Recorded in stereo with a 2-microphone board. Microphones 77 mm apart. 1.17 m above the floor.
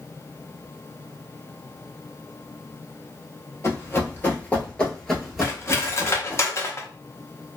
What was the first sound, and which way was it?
Running footsteps, 35° left (ahead or behind).